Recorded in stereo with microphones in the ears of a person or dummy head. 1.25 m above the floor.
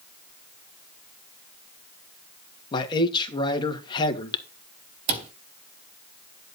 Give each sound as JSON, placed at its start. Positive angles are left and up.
{"t": 2.7, "sound": "a man speaking", "side_deg": 20, "distance_m": 2.5}
{"t": 5.1, "sound": "a cupboard door", "side_deg": -35, "distance_m": 1.2}